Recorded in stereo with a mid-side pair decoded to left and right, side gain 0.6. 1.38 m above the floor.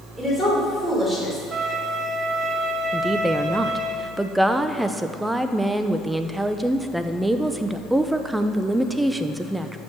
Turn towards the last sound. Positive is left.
turn(degrees=-5)